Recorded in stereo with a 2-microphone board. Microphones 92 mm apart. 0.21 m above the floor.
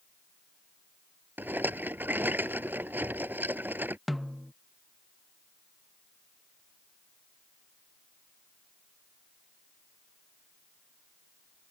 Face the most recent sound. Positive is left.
turn(degrees=0)  # may be behind; listen again after turning